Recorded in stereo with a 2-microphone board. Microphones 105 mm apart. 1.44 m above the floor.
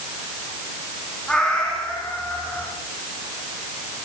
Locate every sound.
1.3 s a cat meowing: 5° left (ahead or behind), 6.5 m; by 2.7 s 10° left (ahead or behind), 7 m